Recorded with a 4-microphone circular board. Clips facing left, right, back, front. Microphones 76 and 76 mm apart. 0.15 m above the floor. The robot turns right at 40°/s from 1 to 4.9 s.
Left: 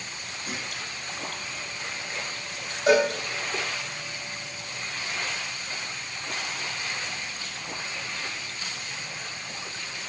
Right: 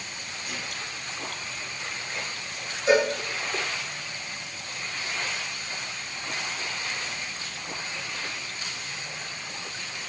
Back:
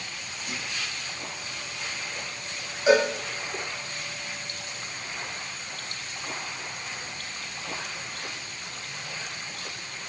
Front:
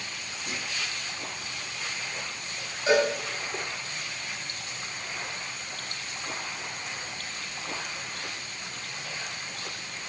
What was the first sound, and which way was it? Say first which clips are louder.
A clunk: left 2 dB, even; 35° left.